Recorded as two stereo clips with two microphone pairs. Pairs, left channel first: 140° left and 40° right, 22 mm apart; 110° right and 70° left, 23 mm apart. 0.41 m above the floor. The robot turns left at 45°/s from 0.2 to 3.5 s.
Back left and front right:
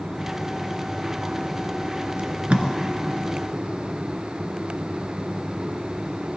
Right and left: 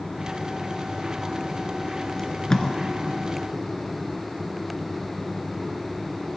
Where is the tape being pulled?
35° right, 0.8 m; by 2.7 s 55° right, 0.8 m.